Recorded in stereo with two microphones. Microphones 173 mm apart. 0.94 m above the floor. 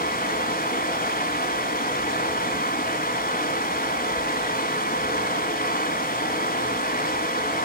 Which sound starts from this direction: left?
Running water, at 0.0 s.